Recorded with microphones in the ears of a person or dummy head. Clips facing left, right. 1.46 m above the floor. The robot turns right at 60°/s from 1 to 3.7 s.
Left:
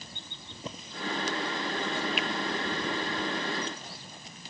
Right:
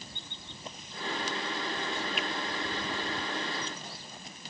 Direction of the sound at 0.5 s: 70° left (ahead or behind).